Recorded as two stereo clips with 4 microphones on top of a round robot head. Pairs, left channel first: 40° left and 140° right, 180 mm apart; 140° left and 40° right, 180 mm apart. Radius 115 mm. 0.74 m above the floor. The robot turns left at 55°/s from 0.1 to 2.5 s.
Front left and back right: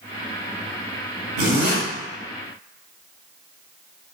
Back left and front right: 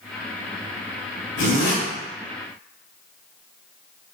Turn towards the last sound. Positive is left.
turn(degrees=130)